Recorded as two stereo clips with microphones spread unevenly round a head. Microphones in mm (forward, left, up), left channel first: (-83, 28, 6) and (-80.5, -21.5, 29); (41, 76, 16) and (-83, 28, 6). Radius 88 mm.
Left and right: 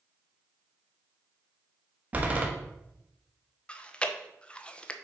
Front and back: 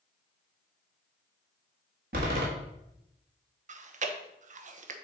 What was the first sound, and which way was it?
A door slam, 125° right.